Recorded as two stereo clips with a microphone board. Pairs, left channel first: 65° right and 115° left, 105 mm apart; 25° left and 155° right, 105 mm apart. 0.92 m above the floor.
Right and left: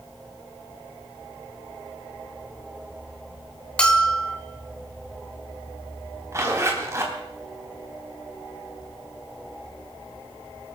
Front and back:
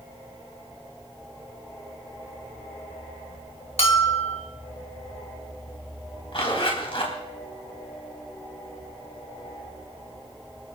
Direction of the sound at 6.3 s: 50° left.